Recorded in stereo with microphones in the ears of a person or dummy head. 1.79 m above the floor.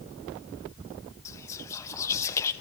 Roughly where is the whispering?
Centre.